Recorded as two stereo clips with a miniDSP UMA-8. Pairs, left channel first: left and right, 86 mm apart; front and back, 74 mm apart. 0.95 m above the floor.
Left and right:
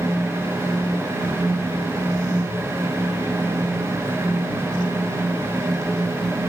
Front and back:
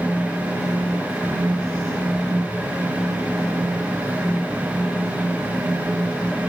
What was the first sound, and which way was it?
Only background noise.